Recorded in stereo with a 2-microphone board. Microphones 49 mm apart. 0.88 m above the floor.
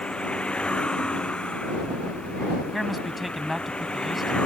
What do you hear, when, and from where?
0.0 s a vehicle: 20° left (ahead or behind)
2.7 s a man speaking: centre (ahead or behind)